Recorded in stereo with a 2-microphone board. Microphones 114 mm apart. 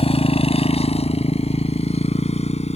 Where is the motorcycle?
60° left (ahead or behind); by 2.8 s 70° left (ahead or behind).